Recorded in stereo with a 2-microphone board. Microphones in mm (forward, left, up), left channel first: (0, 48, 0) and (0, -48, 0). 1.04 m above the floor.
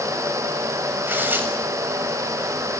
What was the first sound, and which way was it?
Tearing paper, 20° right (ahead or behind).